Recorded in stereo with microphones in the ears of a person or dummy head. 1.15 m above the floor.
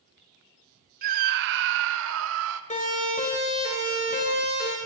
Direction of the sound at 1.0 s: 45° right (ahead or behind).